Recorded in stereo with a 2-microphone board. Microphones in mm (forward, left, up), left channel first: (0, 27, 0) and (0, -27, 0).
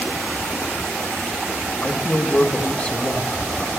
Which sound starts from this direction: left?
A man speaking, at 1.8 s.